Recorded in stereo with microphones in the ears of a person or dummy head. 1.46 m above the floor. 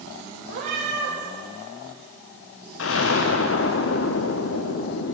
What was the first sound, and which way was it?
A cat meowing, 45° right (ahead or behind).